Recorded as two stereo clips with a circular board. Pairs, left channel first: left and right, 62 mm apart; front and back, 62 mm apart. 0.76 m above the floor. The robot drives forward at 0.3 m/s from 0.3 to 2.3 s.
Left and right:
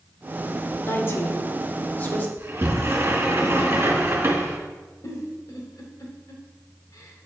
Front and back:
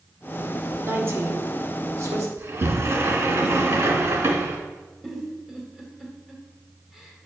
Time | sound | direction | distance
0.8 | a woman speaking | 135° left | 1.3 m
2.4 | a sliding door | 140° right | 1.7 m
5.0 | a giggle | 95° left | 1.5 m